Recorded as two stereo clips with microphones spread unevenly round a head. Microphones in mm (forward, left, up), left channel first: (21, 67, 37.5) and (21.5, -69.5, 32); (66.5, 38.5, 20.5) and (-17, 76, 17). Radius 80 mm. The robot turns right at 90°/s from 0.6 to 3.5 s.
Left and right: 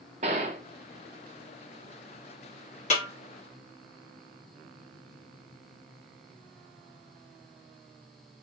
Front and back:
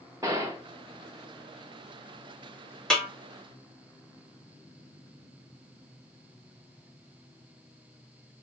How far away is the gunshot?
About 0.5 m.